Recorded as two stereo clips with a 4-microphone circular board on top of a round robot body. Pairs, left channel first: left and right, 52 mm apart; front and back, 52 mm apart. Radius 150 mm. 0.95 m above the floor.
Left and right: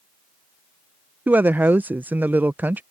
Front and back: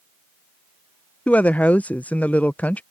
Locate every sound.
1.3 s a woman speaking: 50° right